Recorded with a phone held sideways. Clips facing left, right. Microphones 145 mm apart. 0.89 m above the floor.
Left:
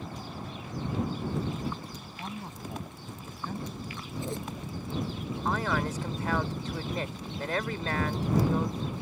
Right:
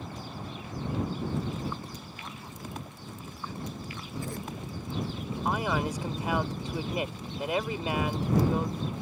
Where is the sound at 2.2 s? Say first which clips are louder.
Left 3 dB; 35° left (ahead or behind); by 3.6 s 55° left (ahead or behind).